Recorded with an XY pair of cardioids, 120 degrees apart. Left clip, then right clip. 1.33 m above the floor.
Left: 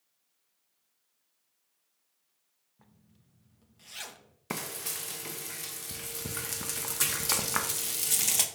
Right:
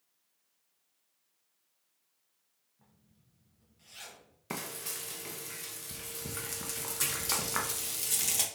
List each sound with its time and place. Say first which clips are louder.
2.8 s a zipper: left 4 dB; 50° left, 0.6 m
4.5 s frying: left 3 dB; 20° left, 0.6 m